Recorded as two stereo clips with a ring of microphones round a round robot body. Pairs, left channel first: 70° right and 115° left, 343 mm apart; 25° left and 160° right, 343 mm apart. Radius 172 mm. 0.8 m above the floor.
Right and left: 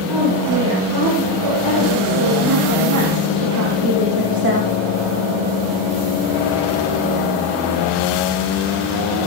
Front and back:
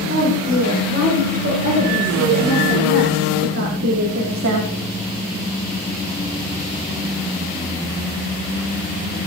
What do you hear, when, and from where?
0.1 s a woman speaking: 140° left, 5.5 m; by 4.7 s 170° left, 1.6 m